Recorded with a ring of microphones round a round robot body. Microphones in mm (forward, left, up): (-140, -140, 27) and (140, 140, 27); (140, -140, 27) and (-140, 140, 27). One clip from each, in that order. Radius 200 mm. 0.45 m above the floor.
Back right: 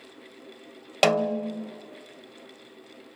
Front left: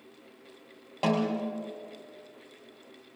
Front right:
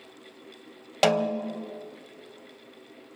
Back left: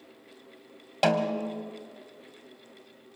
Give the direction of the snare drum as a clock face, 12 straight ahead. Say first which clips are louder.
Back right 7 dB, front right 2 dB; 4 o'clock.